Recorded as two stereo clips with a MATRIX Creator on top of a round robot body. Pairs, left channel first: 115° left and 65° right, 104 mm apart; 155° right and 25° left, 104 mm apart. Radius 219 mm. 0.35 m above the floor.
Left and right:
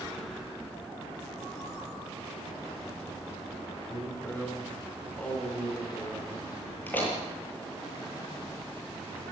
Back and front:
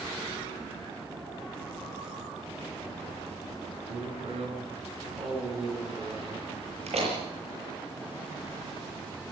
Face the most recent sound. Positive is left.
turn(degrees=40)